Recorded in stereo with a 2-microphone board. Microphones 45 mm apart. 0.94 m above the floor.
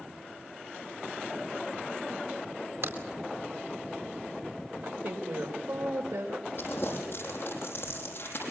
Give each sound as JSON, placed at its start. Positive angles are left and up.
{"t": 2.8, "sound": "a crack", "side_deg": -70, "distance_m": 4.0}
{"t": 4.8, "sound": "a woman speaking", "side_deg": -80, "distance_m": 4.5}
{"t": 6.6, "sound": "crumpling", "side_deg": 50, "distance_m": 7.5}